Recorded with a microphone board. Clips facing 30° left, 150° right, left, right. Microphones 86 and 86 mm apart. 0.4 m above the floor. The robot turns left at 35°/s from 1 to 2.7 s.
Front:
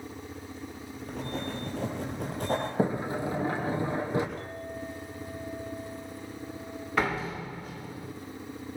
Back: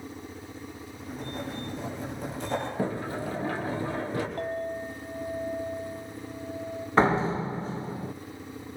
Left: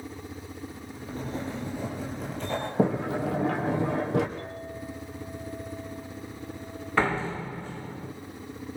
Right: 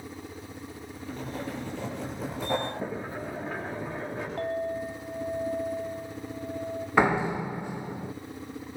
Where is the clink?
115° right, 1.5 m.